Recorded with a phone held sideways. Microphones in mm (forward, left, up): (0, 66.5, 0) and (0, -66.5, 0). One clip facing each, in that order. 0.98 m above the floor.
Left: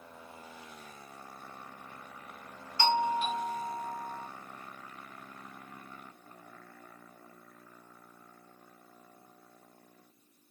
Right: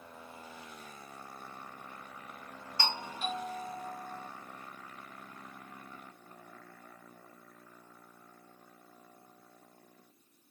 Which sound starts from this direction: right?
A doorbell, at 2.8 s.